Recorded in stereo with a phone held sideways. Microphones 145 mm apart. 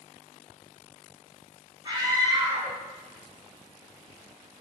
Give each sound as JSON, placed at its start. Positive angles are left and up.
{"t": 1.9, "sound": "a scream", "side_deg": -30, "distance_m": 1.0}